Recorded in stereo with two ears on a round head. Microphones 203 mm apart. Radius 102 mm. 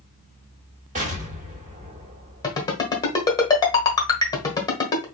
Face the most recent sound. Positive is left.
turn(degrees=20)  # may be behind; listen again after turning